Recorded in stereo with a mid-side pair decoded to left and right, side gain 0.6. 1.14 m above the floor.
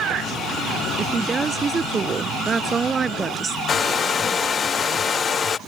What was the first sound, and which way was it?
A woman speaking, 25° right.